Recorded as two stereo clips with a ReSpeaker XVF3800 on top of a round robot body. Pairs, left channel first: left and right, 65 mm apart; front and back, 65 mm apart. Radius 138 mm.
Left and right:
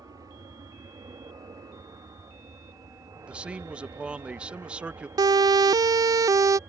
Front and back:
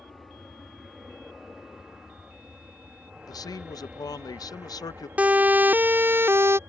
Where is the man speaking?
15° right.